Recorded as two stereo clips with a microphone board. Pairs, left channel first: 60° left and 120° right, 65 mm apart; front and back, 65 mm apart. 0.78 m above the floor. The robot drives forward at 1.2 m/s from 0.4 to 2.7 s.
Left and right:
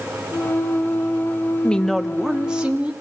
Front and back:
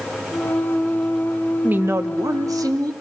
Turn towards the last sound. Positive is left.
turn(degrees=165)